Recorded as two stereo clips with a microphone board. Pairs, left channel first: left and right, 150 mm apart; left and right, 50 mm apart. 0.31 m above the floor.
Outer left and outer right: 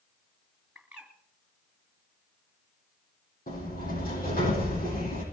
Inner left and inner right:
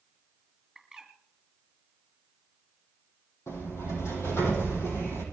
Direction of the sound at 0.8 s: 10° right (ahead or behind).